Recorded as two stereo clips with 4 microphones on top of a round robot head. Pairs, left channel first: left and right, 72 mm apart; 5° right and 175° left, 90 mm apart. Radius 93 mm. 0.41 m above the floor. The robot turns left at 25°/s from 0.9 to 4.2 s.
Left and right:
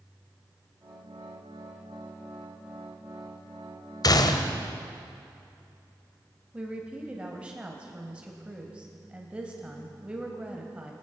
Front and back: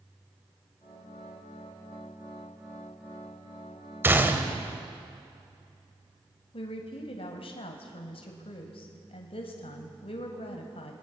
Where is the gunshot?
110° left, 1.8 m.